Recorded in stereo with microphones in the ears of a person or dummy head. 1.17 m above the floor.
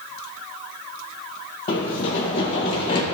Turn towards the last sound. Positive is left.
turn(degrees=40)  # may be behind; listen again after turning